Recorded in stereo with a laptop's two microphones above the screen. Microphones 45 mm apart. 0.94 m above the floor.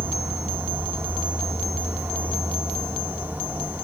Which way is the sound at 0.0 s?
50° right (ahead or behind).